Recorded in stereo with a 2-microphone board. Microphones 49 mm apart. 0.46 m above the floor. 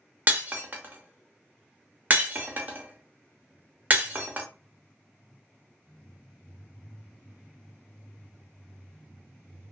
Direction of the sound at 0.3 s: 40° right (ahead or behind).